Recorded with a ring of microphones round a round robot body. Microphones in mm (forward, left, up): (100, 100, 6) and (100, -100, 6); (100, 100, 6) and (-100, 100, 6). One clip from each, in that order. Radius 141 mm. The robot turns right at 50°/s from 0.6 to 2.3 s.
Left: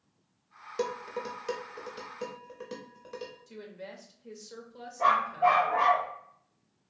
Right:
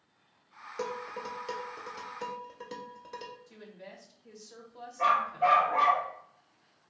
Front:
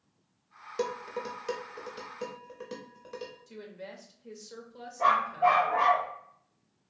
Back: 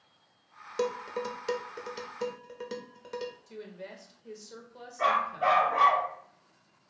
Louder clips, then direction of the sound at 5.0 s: Left 2 dB, front 2 dB; 155° right.